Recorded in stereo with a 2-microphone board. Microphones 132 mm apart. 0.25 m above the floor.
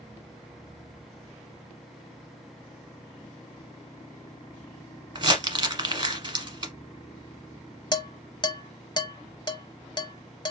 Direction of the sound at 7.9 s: 35° left (ahead or behind).